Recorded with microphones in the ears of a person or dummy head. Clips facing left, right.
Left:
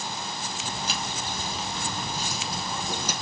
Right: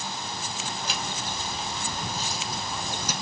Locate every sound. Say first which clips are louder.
0.6 s footsteps: left 1 dB; 45° left (ahead or behind), 2.0 m; by 3.1 s 65° left (ahead or behind), 3.5 m